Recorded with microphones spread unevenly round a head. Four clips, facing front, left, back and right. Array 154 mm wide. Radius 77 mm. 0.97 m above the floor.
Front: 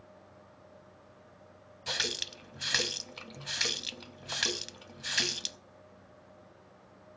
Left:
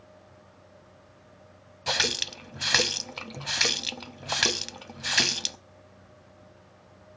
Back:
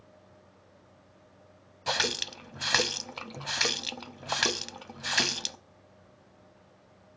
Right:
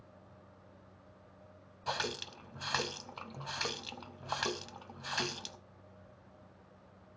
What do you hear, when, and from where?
1.9 s a running tap: 125° left, 0.5 m